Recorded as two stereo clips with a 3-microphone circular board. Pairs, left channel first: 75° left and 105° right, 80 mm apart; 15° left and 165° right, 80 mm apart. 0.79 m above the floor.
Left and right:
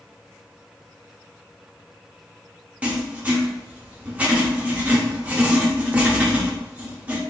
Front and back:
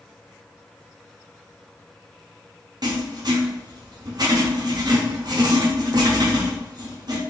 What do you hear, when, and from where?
2.8 s writing: 175° right, 0.8 m